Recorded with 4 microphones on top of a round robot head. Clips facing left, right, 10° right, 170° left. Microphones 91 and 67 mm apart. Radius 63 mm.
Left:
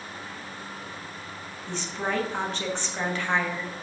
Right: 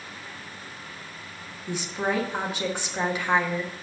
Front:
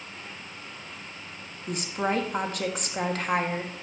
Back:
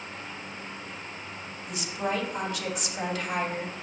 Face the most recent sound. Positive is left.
turn(degrees=-15)